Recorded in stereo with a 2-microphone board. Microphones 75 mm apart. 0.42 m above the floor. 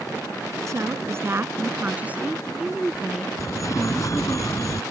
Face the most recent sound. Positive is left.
turn(degrees=45)  # may be behind; listen again after turning